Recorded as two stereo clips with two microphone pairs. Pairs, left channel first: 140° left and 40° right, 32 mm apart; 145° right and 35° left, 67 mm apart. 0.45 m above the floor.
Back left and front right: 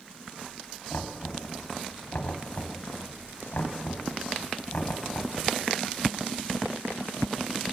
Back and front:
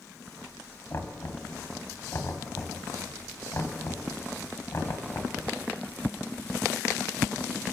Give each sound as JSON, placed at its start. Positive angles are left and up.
{"t": 0.9, "sound": "knocking", "azimuth_deg": 170, "distance_m": 1.9}